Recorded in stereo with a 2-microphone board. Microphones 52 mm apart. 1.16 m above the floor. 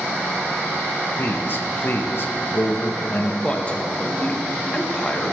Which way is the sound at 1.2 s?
50° left (ahead or behind).